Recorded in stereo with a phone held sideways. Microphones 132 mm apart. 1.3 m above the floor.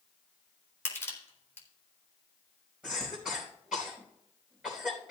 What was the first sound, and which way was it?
Crushing, 20° left (ahead or behind).